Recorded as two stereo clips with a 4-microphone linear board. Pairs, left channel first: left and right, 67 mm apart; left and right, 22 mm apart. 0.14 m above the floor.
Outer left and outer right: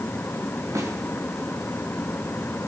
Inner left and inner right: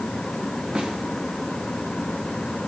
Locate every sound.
0.8 s a snare drum: 50° right (ahead or behind), 6 m